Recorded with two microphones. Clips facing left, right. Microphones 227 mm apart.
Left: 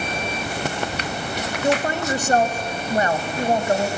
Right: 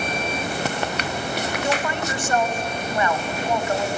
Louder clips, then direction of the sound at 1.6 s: Left 7 dB; 35° left (ahead or behind).